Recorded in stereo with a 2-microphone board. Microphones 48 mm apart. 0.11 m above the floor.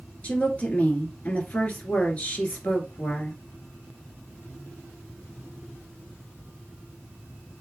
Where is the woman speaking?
30° left (ahead or behind), 1.7 m.